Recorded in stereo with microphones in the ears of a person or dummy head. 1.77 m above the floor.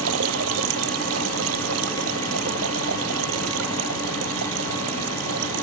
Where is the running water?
75° right (ahead or behind).